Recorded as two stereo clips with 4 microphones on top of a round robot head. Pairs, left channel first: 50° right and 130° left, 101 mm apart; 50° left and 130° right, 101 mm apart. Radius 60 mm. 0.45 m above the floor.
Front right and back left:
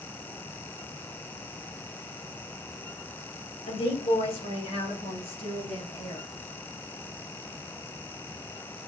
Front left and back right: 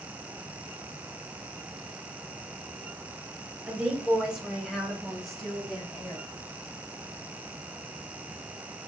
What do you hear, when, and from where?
3.7 s a woman speaking: 55° right, 3 m; by 6.2 s 30° right, 4.5 m